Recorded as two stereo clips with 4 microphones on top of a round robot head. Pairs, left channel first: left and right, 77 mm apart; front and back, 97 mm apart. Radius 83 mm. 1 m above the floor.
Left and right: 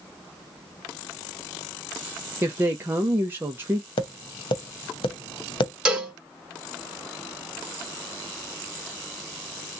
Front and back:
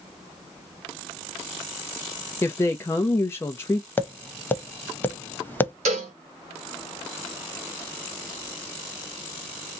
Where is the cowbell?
170° right, 1.6 m.